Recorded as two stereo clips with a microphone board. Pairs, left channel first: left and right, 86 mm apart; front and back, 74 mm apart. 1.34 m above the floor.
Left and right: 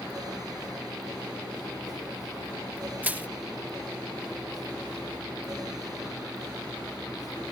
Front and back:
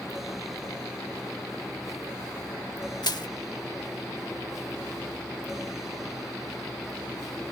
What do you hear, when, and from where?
3.0 s crushing: 20° right